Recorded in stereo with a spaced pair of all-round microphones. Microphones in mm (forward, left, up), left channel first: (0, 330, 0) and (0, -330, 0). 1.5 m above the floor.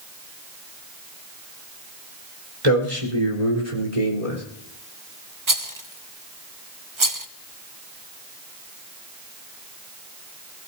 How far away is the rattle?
About 1.0 m.